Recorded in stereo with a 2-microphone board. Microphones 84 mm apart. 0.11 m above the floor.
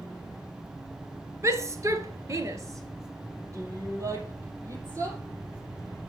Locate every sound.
1.4 s a shout: 35° right (ahead or behind), 2.0 m